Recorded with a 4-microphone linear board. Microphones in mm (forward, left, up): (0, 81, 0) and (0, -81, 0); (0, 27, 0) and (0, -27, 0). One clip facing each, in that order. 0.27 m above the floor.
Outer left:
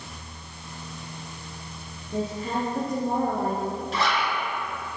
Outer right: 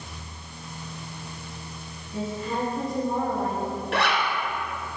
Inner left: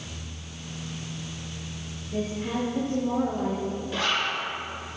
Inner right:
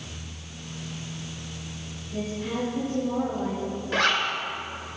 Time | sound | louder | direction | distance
2.1 | a woman speaking | outer left 1 dB, inner left 1 dB | 55° left (ahead or behind) | 5 m
3.9 | a zipper | outer right 2 dB, inner right 5 dB | 70° right (ahead or behind) | 2.5 m